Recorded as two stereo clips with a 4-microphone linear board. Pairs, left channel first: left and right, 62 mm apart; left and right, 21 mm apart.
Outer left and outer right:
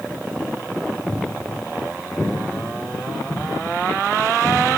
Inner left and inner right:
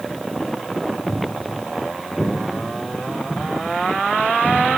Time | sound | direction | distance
1.1 | footsteps | 15° left (ahead or behind) | 1.1 m